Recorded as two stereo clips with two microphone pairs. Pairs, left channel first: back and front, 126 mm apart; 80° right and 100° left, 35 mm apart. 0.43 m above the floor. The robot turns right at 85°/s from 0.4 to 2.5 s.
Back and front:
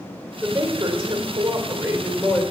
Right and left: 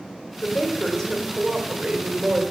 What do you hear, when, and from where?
0.4 s a woman speaking: 75° right, 1.7 m; by 2.4 s 95° left, 1.7 m